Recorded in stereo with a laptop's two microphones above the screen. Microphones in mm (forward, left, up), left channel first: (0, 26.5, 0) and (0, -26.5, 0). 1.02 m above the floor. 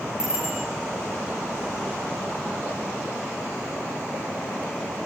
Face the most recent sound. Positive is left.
turn(degrees=-15)  # may be behind; listen again after turning